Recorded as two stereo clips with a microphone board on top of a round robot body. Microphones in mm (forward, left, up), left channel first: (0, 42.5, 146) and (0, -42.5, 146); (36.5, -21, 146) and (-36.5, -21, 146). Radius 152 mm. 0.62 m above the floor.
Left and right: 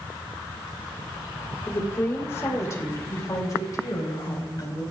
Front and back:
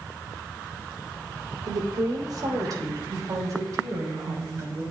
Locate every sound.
1.7 s a woman speaking: 155° left, 2.5 m; by 4.8 s 135° left, 4.5 m